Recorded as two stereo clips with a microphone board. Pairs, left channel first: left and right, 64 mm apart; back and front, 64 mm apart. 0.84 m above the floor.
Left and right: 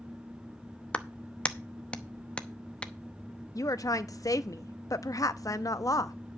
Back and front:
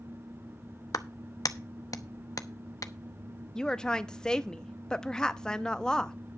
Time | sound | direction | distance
0.9 | a clap | 160° left | 0.8 m
3.5 | a woman speaking | 100° left | 0.7 m